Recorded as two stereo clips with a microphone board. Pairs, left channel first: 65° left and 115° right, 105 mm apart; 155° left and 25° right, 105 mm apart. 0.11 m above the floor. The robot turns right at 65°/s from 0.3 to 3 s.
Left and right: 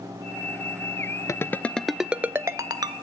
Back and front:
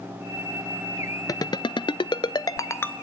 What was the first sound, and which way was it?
A ringtone, 115° left.